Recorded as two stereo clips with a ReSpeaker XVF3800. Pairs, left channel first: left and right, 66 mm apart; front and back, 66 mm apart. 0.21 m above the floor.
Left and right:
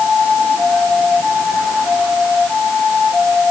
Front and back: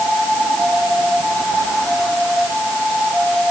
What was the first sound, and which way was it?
Only background noise.